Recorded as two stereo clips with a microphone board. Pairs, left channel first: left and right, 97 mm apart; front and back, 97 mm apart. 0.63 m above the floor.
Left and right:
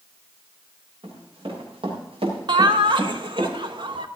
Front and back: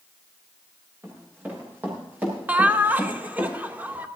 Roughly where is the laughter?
Right.